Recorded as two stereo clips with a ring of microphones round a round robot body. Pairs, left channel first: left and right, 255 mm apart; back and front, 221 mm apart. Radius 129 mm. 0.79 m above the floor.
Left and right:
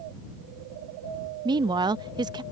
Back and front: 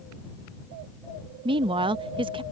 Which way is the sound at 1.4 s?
40° right.